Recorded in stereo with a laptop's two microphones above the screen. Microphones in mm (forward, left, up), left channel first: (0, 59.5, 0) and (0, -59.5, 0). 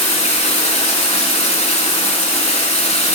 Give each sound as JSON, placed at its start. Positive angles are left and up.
{"t": 0.0, "sound": "running water", "side_deg": 70, "distance_m": 1.9}